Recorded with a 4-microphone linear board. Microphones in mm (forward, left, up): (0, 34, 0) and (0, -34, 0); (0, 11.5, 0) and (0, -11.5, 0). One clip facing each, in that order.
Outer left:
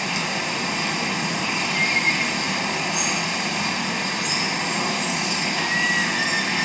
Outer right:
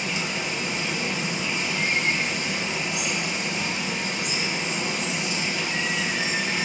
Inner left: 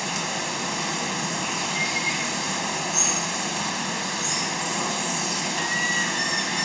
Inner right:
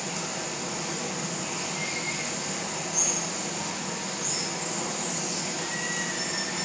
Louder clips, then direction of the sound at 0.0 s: Outer left 3 dB, inner left 5 dB; 80° left.